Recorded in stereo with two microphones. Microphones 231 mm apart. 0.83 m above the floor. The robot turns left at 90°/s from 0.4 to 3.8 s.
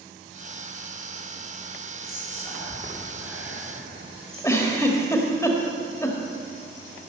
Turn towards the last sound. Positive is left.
turn(degrees=15)  # may be behind; listen again after turning